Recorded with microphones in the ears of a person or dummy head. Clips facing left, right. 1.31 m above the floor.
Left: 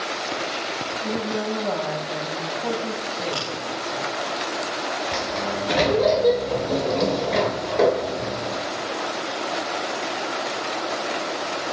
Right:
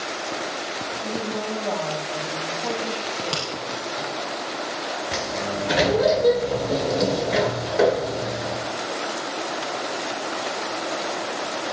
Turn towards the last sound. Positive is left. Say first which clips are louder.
# left 1 dB
turn(degrees=-5)  # may be behind; listen again after turning